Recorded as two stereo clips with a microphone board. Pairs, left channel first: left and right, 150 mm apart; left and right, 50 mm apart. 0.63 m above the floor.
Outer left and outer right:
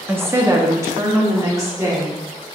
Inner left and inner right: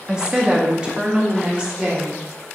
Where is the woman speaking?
15° right (ahead or behind), 0.5 m; by 2.5 s 20° right (ahead or behind), 1.5 m.